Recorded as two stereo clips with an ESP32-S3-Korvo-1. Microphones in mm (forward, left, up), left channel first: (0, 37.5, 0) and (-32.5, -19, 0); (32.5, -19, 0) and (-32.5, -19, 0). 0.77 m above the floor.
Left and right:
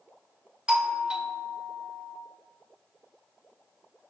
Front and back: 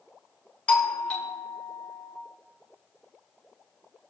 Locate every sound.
0.7 s a doorbell: 60° right, 1.0 m